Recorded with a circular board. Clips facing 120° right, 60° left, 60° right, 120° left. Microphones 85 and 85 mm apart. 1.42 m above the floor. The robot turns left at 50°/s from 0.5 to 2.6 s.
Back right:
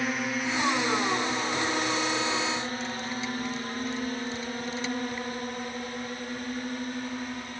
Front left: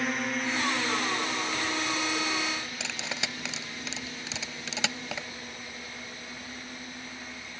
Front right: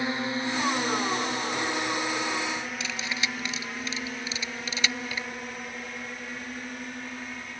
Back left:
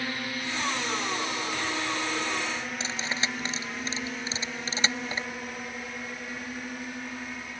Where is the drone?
35° right; by 7.6 s 155° right.